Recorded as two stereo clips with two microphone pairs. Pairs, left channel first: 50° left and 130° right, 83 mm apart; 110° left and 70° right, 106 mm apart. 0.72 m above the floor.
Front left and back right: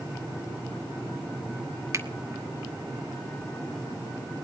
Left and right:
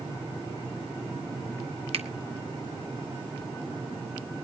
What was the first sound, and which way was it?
A finger snap, 80° right.